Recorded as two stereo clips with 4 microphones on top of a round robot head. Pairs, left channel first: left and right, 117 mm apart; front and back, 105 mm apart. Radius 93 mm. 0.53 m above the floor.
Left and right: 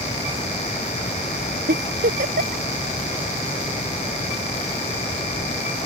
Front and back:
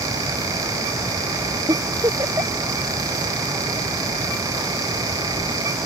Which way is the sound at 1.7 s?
110° right.